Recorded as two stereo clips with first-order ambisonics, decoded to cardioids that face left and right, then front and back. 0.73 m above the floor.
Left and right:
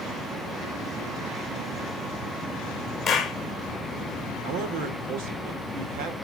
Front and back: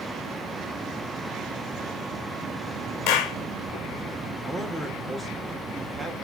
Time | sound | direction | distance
3.1 | a clap | 25° left | 1.6 m
4.4 | a man speaking | 90° right | 3 m